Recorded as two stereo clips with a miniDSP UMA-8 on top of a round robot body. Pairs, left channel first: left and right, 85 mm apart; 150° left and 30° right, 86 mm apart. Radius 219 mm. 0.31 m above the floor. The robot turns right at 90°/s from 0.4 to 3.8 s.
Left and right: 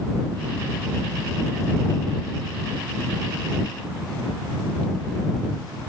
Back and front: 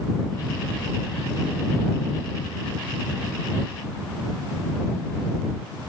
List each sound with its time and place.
Only background noise.